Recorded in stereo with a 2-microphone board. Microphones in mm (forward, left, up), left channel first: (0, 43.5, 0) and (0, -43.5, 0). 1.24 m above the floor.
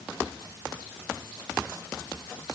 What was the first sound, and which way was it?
Only background noise.